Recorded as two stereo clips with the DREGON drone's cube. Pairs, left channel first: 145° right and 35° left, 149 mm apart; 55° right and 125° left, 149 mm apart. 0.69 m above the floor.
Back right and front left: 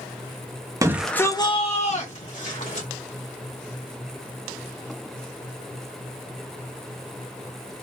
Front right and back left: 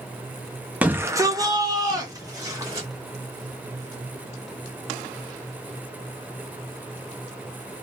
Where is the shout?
55° left, 0.5 m; by 2.9 s 170° right, 1.7 m.